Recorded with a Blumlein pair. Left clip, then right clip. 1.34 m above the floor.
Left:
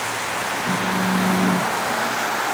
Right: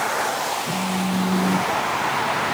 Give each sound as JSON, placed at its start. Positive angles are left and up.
{"t": 0.7, "sound": "a phone buzzing", "azimuth_deg": 50, "distance_m": 3.0}